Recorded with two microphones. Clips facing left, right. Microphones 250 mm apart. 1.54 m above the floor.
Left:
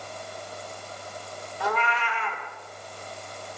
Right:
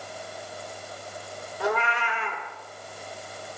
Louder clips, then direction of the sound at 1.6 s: Right 2 dB; 55° right (ahead or behind).